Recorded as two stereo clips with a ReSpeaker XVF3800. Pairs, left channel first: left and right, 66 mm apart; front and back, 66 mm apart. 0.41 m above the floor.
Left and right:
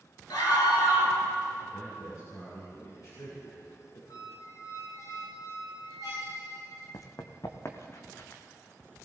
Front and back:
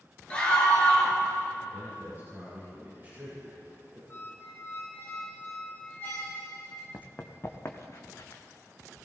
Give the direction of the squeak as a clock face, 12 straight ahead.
10 o'clock.